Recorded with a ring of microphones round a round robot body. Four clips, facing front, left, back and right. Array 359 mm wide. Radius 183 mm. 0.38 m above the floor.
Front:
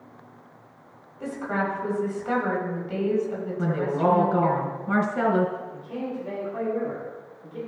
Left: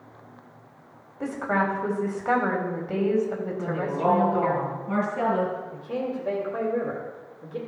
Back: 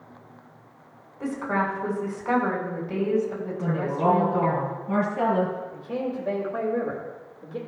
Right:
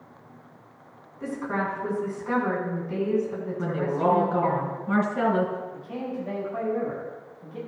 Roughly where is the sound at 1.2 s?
Left.